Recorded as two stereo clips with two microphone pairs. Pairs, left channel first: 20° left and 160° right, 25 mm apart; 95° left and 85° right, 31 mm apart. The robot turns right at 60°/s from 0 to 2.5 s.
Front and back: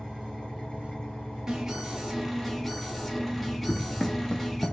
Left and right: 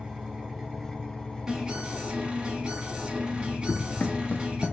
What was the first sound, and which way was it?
An engine running, 35° right.